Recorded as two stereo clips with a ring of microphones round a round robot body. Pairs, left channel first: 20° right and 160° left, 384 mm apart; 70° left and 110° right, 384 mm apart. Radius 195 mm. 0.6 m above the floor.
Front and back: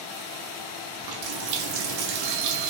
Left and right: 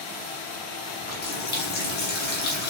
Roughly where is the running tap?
Behind left.